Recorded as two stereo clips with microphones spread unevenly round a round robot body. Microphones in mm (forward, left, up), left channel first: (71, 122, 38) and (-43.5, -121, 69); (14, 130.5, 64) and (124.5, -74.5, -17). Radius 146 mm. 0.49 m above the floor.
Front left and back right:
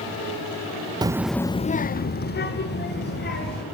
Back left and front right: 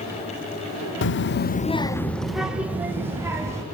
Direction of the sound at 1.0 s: 170° left.